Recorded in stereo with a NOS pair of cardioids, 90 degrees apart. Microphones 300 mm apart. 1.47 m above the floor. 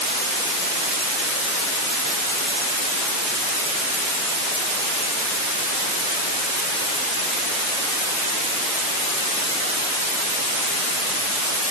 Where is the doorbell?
No doorbell in this recording.